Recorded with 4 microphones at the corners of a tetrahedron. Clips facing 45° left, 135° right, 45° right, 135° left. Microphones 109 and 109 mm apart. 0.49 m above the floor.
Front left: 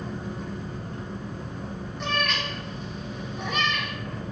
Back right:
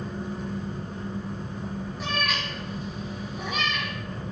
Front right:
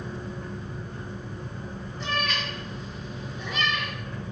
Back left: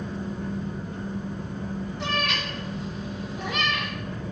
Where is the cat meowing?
140° left, 3 m.